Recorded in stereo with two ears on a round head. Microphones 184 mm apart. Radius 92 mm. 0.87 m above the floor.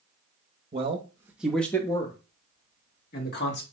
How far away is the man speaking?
About 1.0 m.